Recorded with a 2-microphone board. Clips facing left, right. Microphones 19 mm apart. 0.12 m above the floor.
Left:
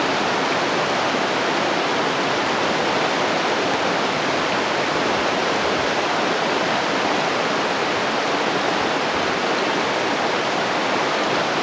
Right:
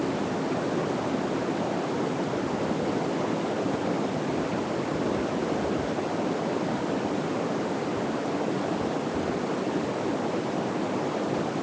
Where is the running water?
75° left (ahead or behind).